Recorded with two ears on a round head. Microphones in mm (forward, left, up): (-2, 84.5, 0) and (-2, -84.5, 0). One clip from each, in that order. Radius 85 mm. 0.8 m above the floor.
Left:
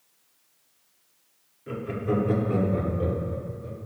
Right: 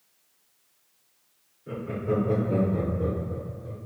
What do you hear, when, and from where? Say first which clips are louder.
1.7 s laughter: even; 65° left (ahead or behind), 2.0 m; by 3.8 s 80° left, 3 m